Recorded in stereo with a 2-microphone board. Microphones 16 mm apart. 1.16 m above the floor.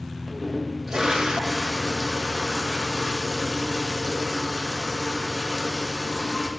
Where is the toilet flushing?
55° right (ahead or behind), 1.3 m.